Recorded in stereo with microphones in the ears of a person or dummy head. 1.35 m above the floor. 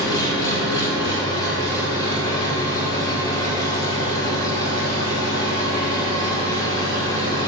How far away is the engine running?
About 3.5 m.